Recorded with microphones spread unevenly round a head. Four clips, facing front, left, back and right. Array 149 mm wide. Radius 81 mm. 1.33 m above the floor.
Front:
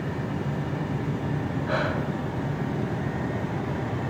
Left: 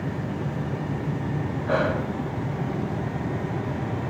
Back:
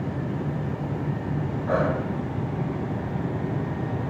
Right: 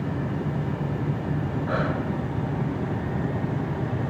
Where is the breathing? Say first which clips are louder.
Left 4 dB, back 4 dB; 150° left, 3.5 m.